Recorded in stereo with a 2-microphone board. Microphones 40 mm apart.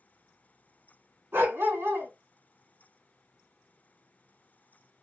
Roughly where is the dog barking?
Right.